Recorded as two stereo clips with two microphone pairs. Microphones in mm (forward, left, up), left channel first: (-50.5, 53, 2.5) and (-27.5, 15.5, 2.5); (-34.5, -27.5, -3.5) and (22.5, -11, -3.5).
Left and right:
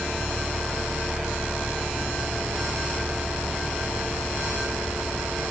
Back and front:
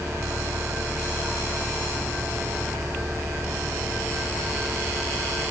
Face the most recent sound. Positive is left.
No sound to turn to.